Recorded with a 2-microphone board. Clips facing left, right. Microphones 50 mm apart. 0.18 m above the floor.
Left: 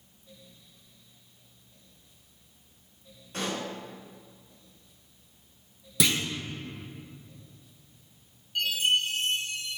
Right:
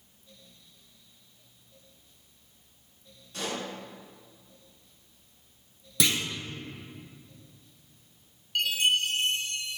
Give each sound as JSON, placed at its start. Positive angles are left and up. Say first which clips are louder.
{"t": 3.3, "sound": "a pop", "louder": "left 2 dB", "side_deg": 35, "distance_m": 2.0}
{"t": 6.0, "sound": "a clunk", "louder": "left 1 dB", "side_deg": 5, "distance_m": 0.7}
{"t": 8.6, "sound": "a chime", "louder": "even", "side_deg": -70, "distance_m": 1.1}